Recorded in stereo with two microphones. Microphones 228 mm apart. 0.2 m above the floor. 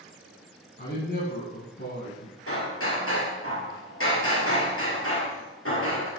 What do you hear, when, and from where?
0.8 s a man speaking: 50° left (ahead or behind), 2.5 m
2.5 s hammering: 70° left (ahead or behind), 3.5 m